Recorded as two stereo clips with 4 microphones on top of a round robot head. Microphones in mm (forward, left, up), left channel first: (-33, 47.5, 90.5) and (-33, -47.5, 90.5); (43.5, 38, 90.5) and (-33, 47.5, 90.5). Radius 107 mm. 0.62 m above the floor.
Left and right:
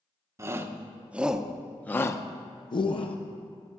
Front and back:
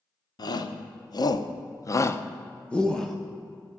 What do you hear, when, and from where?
0.4 s a shout: 30° right, 1.3 m; by 3.2 s 80° left, 1.1 m